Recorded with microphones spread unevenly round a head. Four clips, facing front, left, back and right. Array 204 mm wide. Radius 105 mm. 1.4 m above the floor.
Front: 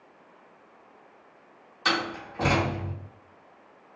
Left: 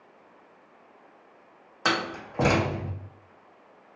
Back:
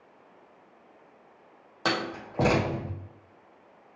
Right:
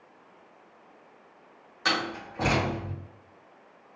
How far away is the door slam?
About 0.5 m.